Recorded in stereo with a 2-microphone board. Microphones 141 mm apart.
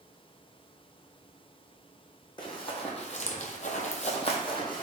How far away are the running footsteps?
About 1.1 m.